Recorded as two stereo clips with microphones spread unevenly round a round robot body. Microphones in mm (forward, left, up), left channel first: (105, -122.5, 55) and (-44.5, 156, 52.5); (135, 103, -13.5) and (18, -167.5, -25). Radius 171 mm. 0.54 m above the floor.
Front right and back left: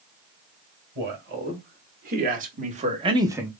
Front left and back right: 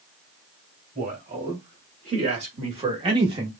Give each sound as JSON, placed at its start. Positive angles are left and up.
{"t": 0.9, "sound": "a man speaking", "azimuth_deg": 175, "distance_m": 2.0}